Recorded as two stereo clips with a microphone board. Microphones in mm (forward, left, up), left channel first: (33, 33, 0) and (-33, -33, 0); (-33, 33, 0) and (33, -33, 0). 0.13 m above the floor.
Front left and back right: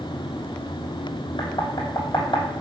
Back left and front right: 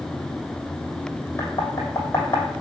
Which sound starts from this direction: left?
Knocking, at 1.4 s.